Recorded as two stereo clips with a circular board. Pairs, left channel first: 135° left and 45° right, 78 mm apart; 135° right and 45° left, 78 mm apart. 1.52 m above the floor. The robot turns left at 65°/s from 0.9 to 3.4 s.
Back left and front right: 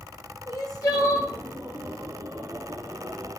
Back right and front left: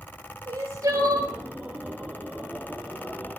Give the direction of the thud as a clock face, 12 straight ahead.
No thud in this recording.